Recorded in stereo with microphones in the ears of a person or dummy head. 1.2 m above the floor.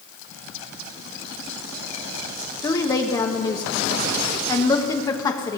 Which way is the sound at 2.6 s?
20° left (ahead or behind).